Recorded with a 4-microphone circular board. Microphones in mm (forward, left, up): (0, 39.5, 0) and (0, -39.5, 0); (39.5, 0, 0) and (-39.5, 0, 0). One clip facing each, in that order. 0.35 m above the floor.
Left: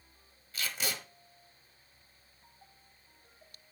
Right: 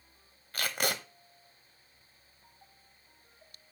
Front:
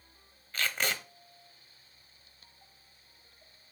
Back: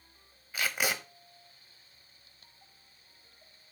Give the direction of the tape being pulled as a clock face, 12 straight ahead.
3 o'clock.